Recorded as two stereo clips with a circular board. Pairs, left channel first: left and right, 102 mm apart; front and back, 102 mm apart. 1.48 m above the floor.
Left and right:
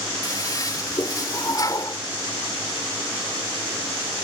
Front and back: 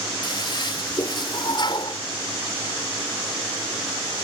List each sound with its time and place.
0.2 s a toilet flushing: 40° left